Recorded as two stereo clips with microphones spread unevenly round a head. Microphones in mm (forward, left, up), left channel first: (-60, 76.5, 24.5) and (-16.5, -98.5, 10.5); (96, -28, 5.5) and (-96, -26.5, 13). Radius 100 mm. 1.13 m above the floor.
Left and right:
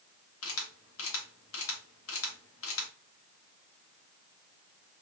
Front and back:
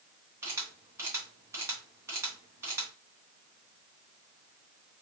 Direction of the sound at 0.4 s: 100° left.